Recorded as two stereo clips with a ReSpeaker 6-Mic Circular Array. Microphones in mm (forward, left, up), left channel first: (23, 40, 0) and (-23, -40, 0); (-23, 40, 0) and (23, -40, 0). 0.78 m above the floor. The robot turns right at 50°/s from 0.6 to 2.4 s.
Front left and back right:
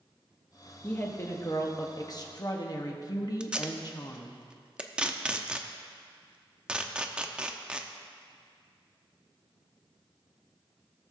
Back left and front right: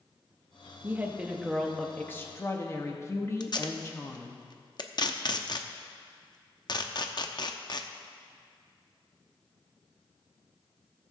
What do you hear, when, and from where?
0.8 s a woman speaking: 5° right, 1.3 m; by 4.4 s 75° left, 1.3 m
3.4 s tape being pulled: 160° left, 0.6 m